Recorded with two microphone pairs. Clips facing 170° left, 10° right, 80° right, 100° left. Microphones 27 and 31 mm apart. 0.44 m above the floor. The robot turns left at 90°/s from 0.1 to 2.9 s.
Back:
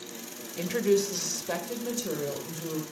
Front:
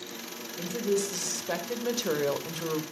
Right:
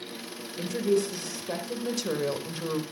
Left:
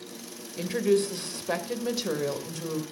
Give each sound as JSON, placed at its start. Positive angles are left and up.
{"t": 0.6, "sound": "a woman speaking", "azimuth_deg": 160, "distance_m": 2.0}